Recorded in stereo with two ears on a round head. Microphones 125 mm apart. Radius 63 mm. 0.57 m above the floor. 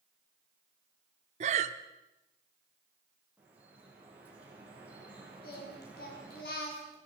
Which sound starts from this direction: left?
Singing, at 5.4 s.